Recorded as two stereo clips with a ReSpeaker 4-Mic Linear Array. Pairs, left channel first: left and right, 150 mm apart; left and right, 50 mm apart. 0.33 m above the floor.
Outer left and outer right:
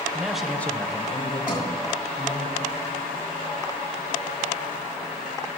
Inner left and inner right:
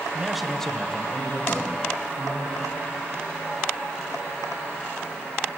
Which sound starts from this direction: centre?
A man speaking, at 0.1 s.